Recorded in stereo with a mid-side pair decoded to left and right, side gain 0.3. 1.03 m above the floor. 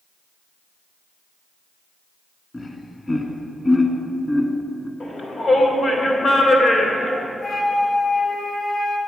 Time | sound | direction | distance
2.5 | laughter | 30° left | 1.5 m
5.0 | a shout | 65° left | 2.5 m
7.4 | a flute | 70° left | 1.8 m